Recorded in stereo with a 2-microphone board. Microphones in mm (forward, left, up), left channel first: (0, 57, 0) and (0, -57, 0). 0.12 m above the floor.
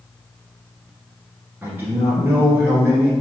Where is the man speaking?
20° right (ahead or behind), 2 m.